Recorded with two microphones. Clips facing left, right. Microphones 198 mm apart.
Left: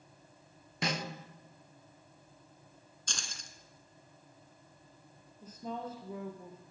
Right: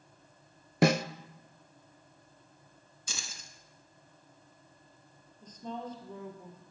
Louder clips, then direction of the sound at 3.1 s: Right 1 dB; 5° right (ahead or behind).